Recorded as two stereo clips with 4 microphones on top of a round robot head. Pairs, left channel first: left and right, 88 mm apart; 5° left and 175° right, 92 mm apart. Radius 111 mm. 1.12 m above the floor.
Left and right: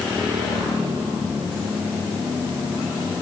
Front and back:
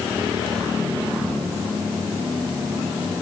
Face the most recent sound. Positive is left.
No sound to turn to.